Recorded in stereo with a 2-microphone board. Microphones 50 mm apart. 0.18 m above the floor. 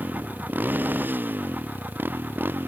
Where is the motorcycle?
35° right (ahead or behind); by 2.7 s 45° right (ahead or behind).